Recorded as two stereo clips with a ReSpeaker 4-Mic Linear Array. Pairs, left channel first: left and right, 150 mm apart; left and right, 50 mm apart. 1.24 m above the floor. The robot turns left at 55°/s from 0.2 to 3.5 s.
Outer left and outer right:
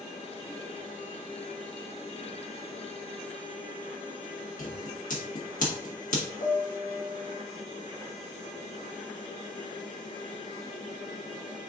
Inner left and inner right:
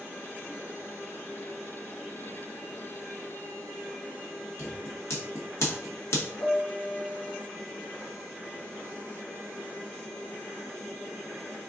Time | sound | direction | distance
4.6 | scissors | 60° left (ahead or behind) | 1.4 m
6.4 | a piano | 65° left (ahead or behind) | 1.5 m